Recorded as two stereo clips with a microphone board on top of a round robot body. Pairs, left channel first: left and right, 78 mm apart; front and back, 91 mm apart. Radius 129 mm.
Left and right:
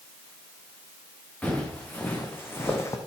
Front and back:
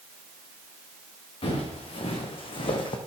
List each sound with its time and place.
1.4 s footsteps: 20° left, 4 m; by 3.0 s 35° left, 1.8 m